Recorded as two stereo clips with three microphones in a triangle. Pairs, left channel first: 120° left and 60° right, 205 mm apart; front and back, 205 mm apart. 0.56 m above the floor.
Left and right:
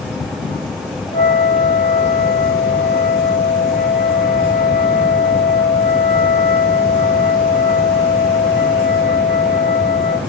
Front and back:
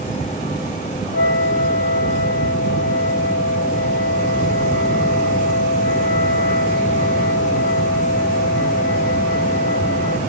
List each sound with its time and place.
1.1 s a flute: 55° right, 6.5 m